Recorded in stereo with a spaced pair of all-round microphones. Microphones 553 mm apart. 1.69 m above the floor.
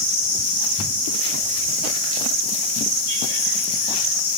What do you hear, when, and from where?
Only background noise.